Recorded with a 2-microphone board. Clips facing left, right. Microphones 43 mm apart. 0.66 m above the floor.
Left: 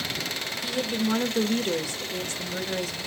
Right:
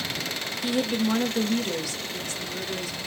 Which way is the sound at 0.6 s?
20° right (ahead or behind).